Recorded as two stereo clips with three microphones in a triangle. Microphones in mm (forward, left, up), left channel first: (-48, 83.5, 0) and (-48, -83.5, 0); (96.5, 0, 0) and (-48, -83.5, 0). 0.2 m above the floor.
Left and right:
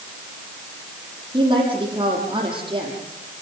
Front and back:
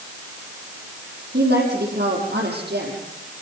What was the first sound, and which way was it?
A woman speaking, 155° right.